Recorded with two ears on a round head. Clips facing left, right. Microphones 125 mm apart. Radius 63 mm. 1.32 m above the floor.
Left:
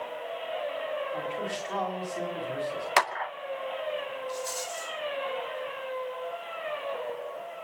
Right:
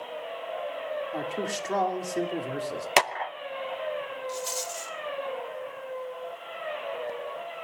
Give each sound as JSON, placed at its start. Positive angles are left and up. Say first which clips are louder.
{"t": 1.1, "sound": "a man speaking", "louder": "right 1 dB", "side_deg": -55, "distance_m": 3.5}
{"t": 3.0, "sound": "a clap", "louder": "right 2 dB", "side_deg": -25, "distance_m": 0.6}
{"t": 4.3, "sound": "a rattle", "louder": "even", "side_deg": -25, "distance_m": 2.5}